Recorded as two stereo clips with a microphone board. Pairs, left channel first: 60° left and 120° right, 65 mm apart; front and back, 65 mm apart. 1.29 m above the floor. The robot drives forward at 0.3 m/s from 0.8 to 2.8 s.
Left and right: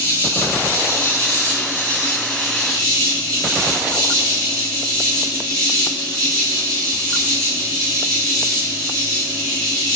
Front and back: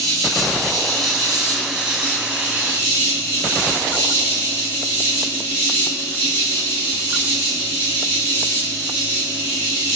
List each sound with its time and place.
0.0 s an insect: 80° left, 1.1 m; by 10.0 s 130° left, 1.2 m